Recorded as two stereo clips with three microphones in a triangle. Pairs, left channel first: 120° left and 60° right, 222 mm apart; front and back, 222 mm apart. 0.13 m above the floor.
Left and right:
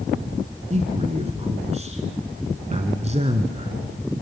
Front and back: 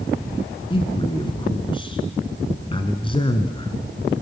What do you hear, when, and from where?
0.7 s a man speaking: 40° right, 1.1 m